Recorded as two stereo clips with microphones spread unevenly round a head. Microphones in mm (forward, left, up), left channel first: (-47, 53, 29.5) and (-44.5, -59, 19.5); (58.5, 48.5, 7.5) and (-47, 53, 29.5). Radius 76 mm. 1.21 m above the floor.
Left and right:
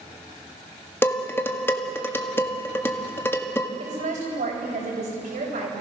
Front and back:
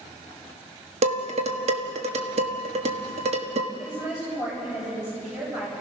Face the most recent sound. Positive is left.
turn(degrees=-100)